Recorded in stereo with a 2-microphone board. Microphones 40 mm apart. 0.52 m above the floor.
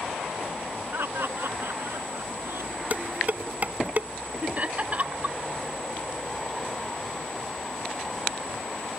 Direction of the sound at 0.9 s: 70° right (ahead or behind).